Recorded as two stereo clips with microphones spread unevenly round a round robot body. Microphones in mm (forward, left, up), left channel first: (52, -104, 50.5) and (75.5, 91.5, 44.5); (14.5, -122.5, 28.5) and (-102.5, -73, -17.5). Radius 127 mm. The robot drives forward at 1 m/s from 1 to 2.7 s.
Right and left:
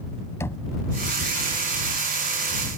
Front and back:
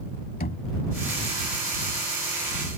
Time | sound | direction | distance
0.4 | knocking | 20° right | ?